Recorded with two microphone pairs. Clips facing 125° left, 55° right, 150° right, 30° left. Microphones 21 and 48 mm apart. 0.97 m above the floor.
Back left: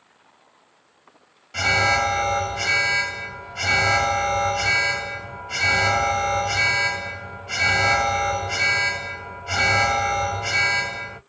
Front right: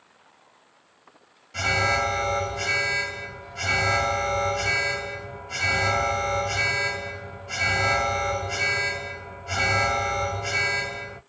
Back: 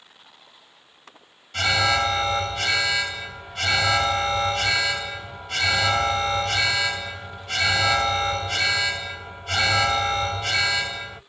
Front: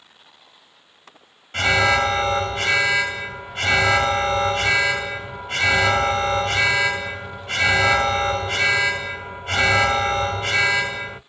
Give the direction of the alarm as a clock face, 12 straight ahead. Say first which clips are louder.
Back left 4 dB, front 4 dB; 10 o'clock.